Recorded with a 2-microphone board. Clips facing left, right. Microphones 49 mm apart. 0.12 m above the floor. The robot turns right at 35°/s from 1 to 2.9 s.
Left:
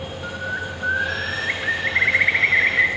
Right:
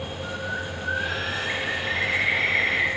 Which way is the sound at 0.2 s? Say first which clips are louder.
Left 4 dB; 50° left.